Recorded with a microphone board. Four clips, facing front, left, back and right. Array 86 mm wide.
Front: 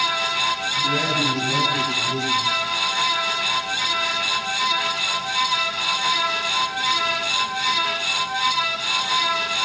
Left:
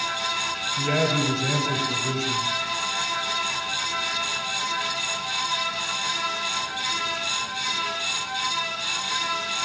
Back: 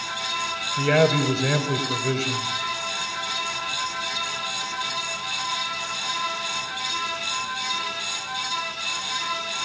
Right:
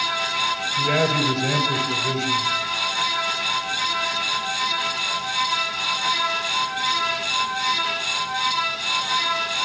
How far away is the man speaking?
About 6 m.